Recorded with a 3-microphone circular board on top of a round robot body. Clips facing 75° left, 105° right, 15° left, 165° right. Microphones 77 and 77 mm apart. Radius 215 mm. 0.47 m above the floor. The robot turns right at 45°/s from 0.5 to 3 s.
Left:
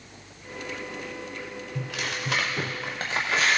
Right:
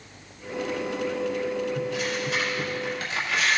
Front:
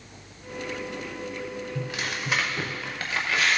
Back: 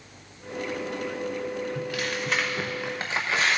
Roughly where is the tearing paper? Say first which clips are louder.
Right 5 dB, back 2 dB; left.